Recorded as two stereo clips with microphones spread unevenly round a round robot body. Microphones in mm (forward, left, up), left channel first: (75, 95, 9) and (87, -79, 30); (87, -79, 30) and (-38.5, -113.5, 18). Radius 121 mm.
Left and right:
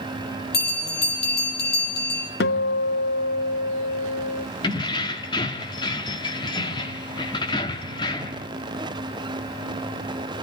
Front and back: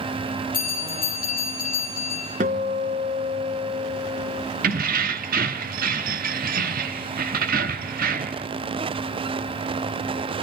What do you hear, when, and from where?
0.5 s a bell: 70° left, 6.5 m
2.4 s a guitar: 140° left, 0.6 m
4.6 s keys jangling: 165° left, 1.0 m